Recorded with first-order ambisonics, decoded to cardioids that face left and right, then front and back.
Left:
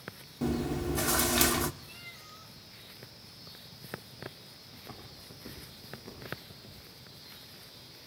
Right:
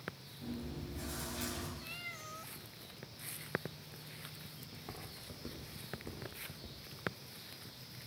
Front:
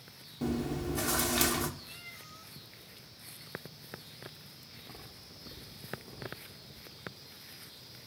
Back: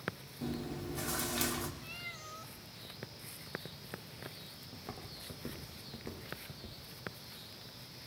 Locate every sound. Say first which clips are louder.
0.4 s chewing: left 14 dB, front 6 dB; 65° left, 1.2 m
1.8 s a cat meowing: right 2 dB, back 3 dB; 130° right, 1.2 m
4.7 s footsteps: left 1 dB, back 2 dB; 155° right, 9 m; by 6.8 s 145° right, 7.5 m